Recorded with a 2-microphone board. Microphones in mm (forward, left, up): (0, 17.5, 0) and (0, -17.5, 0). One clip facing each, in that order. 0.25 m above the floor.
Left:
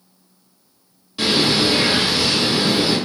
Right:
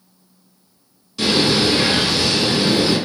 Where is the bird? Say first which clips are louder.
Right 1 dB; 20° left (ahead or behind), 1.0 m.